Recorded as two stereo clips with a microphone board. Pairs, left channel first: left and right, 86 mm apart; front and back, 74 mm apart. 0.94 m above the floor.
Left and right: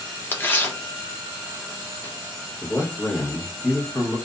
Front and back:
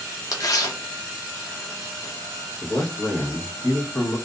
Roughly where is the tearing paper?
Ahead left.